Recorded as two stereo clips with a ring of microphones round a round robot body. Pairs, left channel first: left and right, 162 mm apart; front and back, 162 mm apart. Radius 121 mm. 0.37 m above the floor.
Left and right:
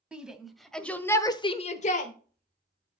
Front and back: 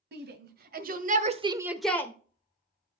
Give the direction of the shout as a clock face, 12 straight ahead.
6 o'clock.